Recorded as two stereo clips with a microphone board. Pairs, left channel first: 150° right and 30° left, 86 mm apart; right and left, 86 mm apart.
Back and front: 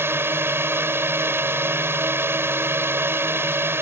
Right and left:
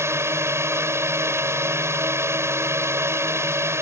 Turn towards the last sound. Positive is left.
turn(degrees=65)